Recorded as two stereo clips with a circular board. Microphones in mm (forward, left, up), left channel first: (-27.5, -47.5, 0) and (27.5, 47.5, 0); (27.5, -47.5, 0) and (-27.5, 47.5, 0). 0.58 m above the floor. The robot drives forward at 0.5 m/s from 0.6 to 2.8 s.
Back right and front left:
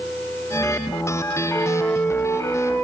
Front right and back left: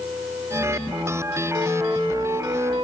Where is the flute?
175° left, 4 m.